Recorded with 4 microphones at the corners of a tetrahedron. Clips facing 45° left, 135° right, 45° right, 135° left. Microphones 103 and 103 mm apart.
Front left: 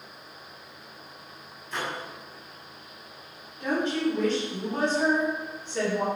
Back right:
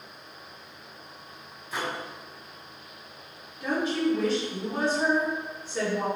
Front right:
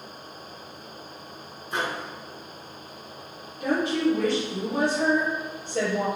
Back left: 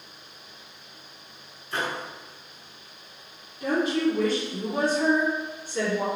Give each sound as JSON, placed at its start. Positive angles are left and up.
{"t": 1.7, "sound": "a microwave", "azimuth_deg": -70, "distance_m": 0.8}
{"t": 3.6, "sound": "a woman speaking", "azimuth_deg": -55, "distance_m": 1.9}